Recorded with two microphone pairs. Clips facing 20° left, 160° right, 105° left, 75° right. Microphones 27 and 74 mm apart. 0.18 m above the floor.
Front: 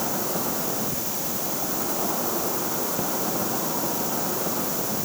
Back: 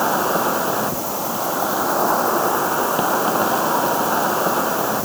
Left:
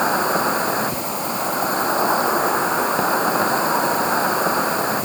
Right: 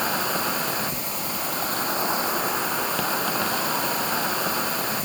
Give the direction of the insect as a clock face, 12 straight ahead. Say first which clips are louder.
Back 10 dB, left 7 dB; 6 o'clock.